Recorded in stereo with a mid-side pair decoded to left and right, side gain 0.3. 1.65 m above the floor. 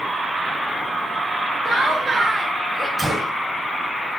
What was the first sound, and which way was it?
Laughter, 55° right.